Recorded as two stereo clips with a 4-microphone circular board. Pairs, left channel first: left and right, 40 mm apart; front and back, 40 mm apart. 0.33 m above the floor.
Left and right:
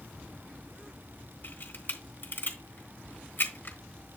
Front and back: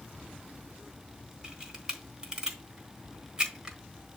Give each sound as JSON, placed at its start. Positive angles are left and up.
{"t": 1.4, "sound": "a camera shutter", "azimuth_deg": 110, "distance_m": 3.0}